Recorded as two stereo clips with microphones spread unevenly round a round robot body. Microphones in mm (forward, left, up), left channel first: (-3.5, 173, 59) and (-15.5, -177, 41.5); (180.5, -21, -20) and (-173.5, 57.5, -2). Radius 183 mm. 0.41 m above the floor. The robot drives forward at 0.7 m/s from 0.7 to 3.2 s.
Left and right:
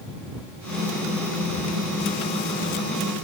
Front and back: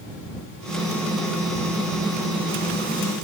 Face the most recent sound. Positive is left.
No sound to turn to.